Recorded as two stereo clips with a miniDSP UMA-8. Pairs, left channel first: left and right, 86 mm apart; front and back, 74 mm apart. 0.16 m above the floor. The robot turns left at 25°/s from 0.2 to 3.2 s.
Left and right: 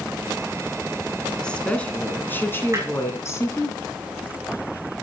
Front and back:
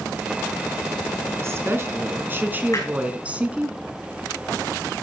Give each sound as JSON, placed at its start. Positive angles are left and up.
{"t": 1.4, "sound": "a woman speaking", "azimuth_deg": 165, "distance_m": 1.7}
{"t": 2.7, "sound": "hammering", "azimuth_deg": -35, "distance_m": 5.5}